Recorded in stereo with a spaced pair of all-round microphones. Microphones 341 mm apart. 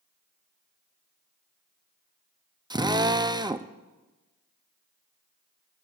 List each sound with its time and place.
2.7 s a drill: 10° right (ahead or behind), 0.5 m